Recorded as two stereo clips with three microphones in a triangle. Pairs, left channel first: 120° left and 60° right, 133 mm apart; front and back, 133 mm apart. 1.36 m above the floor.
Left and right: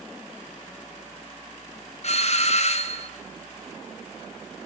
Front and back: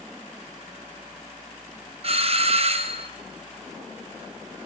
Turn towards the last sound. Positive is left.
turn(degrees=145)